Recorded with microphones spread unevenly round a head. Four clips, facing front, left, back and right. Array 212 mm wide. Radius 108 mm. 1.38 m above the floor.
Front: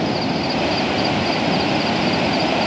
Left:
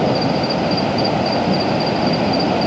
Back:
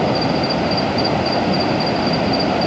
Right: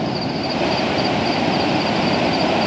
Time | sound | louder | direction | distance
0.0 | an insect | left 5 dB, back 3 dB | 110° left | ?